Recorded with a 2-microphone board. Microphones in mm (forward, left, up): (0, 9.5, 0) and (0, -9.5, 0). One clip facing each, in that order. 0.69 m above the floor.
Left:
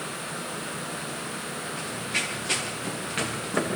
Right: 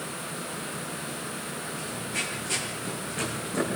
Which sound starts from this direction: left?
Running footsteps, at 1.8 s.